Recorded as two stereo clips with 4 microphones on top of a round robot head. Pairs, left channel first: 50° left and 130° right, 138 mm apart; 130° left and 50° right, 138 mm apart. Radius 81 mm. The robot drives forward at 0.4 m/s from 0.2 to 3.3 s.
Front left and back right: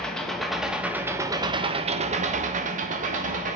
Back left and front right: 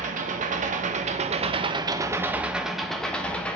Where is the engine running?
35° right, 0.8 m; by 3.6 s 150° right, 0.8 m.